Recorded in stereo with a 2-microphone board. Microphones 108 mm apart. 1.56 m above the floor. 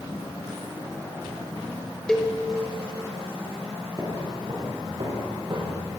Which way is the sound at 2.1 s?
5° left (ahead or behind).